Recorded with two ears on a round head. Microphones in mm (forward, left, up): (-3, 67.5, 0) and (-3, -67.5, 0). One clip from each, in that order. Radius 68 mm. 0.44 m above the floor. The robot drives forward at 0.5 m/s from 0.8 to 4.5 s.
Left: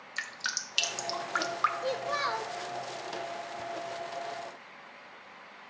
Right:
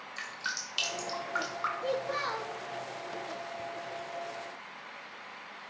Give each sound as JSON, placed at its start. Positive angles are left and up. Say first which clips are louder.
{"t": 0.2, "sound": "dripping", "louder": "left 2 dB", "side_deg": 30, "distance_m": 0.8}
{"t": 1.8, "sound": "a child speaking", "louder": "left 1 dB", "side_deg": 35, "distance_m": 0.7}